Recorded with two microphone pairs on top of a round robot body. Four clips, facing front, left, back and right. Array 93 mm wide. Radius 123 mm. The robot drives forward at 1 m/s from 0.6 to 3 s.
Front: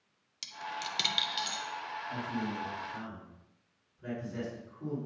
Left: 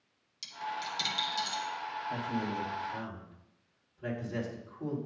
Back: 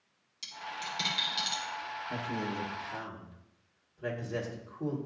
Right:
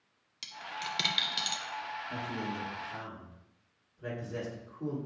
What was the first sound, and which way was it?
A dropped coin, 55° right.